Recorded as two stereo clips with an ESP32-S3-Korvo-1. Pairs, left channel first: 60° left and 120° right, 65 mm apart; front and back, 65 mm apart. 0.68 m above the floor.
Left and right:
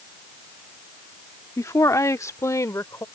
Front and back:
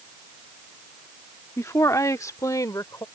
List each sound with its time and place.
1.6 s a woman speaking: 35° left; by 3.0 s 25° left